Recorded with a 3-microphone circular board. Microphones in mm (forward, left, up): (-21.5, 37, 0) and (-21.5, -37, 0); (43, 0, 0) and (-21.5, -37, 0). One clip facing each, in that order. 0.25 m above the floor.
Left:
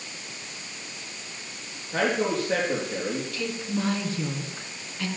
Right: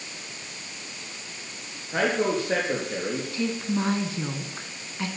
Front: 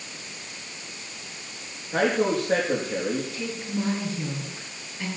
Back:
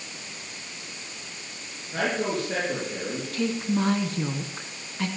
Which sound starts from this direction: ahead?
A man speaking, at 1.9 s.